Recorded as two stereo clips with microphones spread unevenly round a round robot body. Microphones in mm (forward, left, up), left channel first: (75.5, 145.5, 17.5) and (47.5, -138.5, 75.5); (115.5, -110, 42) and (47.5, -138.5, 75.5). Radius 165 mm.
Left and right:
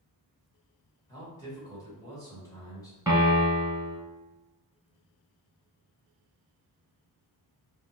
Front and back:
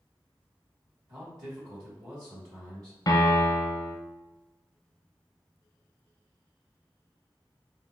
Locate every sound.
1.1 s a man speaking: 150° left, 1.4 m
3.1 s a piano: 15° right, 0.9 m